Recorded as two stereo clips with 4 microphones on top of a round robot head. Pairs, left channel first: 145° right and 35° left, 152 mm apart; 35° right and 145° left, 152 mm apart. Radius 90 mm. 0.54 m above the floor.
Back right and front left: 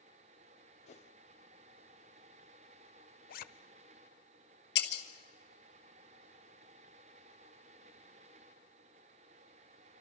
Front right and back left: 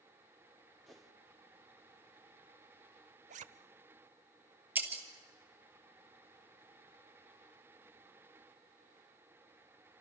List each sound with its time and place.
0.9 s a whoosh: 125° right, 2 m
3.3 s a zipper: 175° right, 0.8 m
4.8 s breaking glass: 135° right, 2.5 m